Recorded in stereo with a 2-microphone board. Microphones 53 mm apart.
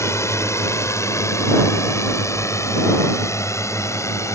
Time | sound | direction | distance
0.0 | a drone | 65° left (ahead or behind) | ?